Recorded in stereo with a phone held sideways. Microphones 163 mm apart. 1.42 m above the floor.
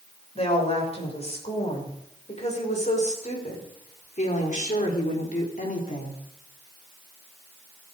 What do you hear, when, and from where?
0.3 s a woman speaking: 40° left (ahead or behind), 6.5 m; by 6.2 s 55° left (ahead or behind), 4 m